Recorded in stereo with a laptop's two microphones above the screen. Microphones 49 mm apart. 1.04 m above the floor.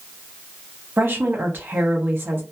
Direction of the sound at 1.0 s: 45° right (ahead or behind).